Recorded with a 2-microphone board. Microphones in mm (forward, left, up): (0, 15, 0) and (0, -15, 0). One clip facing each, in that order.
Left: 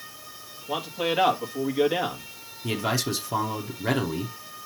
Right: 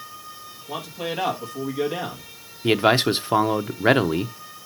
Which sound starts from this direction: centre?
A man speaking, at 0.7 s.